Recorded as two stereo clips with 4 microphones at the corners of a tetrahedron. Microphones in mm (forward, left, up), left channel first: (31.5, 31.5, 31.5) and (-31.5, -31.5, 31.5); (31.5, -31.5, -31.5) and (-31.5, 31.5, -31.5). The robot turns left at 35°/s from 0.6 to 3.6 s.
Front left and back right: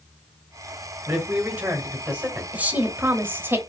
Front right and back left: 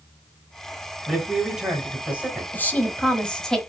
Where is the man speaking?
140° right, 1.4 m; by 2.4 s 170° left, 1.4 m.